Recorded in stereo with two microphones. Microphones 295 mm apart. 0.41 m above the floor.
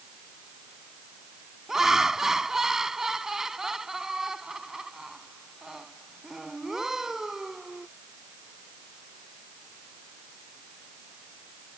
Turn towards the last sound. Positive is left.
turn(degrees=0)  # may be behind; listen again after turning